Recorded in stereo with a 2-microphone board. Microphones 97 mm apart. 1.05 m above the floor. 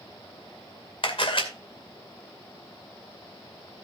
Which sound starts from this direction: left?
A camera shutter, at 1.0 s.